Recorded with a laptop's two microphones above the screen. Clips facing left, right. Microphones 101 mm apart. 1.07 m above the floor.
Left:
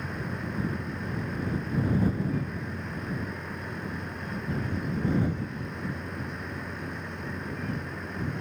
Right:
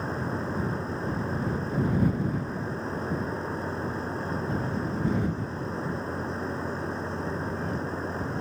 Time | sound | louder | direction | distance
0.0 | a machine running | right 4 dB | 30° right (ahead or behind) | ?